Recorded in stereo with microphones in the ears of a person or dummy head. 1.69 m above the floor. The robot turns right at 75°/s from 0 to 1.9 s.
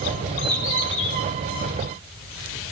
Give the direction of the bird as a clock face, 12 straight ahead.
12 o'clock.